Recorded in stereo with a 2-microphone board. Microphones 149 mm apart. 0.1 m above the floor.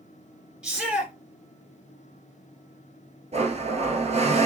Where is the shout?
5° right (ahead or behind), 1.8 m.